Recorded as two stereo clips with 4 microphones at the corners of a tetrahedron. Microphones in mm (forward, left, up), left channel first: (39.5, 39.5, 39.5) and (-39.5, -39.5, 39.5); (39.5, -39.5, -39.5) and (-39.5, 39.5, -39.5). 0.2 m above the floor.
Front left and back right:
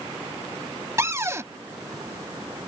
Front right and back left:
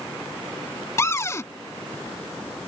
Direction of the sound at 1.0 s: 85° right.